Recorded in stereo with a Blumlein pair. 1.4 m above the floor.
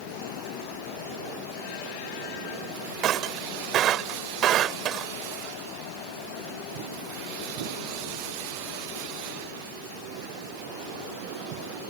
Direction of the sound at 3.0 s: 30° right.